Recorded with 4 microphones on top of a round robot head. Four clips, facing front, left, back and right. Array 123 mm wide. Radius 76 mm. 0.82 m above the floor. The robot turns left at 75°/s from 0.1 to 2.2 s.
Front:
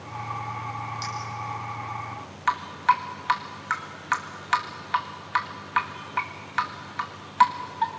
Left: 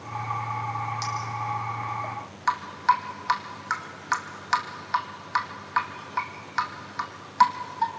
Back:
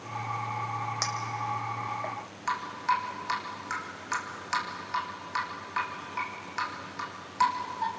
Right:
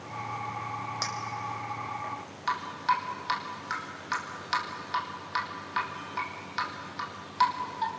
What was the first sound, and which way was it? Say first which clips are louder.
A clink: left 4 dB, even; 135° right.